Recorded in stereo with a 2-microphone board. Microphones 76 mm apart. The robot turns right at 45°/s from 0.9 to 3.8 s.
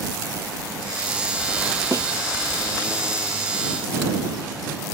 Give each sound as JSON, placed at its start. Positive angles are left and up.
{"t": 1.9, "sound": "a snare drum", "side_deg": -40}